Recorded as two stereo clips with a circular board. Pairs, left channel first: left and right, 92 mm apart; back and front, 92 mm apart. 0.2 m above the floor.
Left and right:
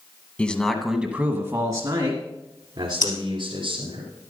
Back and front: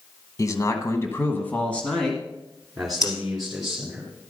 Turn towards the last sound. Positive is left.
turn(degrees=130)